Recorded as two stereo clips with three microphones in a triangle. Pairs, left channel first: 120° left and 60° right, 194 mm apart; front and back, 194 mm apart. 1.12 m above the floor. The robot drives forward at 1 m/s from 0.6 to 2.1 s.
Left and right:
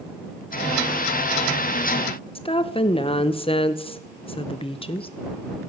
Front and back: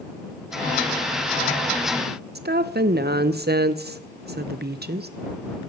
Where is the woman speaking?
175° left, 0.5 m.